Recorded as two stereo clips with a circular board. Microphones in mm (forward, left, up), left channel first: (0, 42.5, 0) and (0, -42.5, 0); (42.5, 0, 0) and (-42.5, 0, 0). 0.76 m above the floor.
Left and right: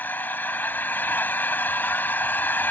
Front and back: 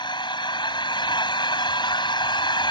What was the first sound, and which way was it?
An engine running, 20° left.